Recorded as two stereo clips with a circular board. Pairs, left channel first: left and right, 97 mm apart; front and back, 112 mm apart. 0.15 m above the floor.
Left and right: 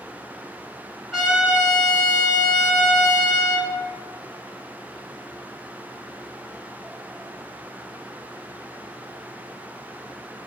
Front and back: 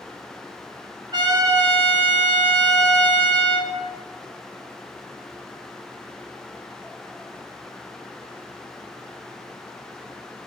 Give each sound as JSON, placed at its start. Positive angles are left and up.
{"t": 1.1, "sound": "a trumpet", "azimuth_deg": 180, "distance_m": 1.6}